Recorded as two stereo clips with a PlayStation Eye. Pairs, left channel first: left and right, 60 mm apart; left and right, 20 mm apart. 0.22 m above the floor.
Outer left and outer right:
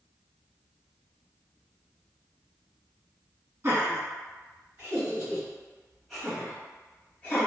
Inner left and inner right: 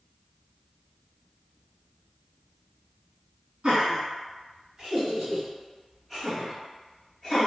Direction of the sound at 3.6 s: 35° right (ahead or behind).